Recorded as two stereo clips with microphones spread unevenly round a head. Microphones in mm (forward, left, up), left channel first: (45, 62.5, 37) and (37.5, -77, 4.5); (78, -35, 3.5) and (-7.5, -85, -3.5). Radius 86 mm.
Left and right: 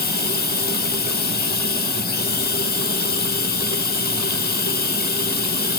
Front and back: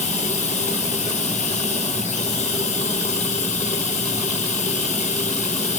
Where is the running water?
70° left, 0.8 m.